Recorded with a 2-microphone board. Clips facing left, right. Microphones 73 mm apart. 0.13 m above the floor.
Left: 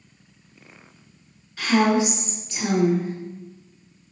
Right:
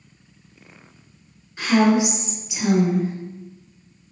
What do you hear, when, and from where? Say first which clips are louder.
1.6 s a woman speaking: right 2 dB; 25° right (ahead or behind), 1.3 m; by 3.1 s centre (ahead or behind), 1.3 m